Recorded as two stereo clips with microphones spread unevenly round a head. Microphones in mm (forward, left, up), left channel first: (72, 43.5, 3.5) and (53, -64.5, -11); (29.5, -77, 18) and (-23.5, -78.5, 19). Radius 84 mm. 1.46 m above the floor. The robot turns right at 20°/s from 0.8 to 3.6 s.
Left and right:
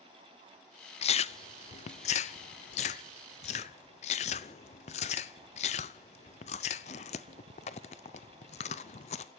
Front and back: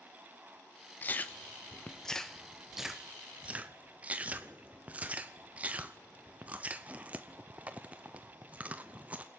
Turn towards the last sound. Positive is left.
turn(degrees=115)